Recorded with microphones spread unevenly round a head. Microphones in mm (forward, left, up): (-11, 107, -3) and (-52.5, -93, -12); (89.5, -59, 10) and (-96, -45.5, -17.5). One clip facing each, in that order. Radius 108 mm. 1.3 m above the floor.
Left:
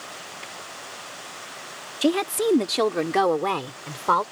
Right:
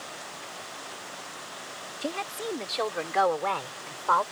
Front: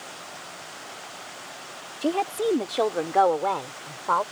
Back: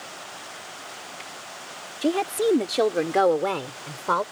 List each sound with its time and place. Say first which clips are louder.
2.0 s a woman speaking: left 13 dB, back 2 dB; 95° left; by 4.2 s 115° left